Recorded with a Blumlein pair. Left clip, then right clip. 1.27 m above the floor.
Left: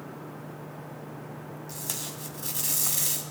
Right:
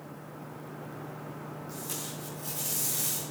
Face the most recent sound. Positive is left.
turn(degrees=65)